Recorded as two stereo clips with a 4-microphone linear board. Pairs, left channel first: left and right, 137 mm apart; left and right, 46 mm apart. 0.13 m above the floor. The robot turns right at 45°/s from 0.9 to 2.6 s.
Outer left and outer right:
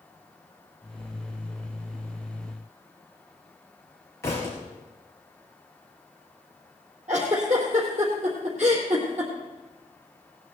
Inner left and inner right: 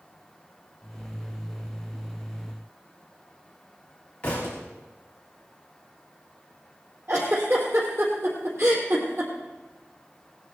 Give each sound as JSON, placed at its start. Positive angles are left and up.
{"t": 4.2, "sound": "a thud", "side_deg": 20, "distance_m": 5.0}
{"t": 7.1, "sound": "a giggle", "side_deg": -55, "distance_m": 3.5}